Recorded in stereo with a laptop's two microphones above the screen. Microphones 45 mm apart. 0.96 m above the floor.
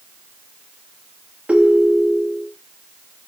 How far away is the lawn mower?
I don't hear a lawn mower.